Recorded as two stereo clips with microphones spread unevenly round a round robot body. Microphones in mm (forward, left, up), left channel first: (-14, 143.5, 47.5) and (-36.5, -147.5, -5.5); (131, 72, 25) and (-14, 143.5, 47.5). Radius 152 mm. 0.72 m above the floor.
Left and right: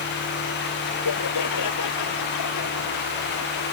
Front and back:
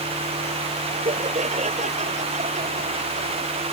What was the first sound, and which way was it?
Laughter, 110° left.